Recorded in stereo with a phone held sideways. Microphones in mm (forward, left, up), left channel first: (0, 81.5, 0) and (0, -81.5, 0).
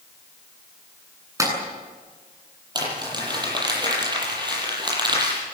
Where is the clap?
20° right (ahead or behind), 9 m.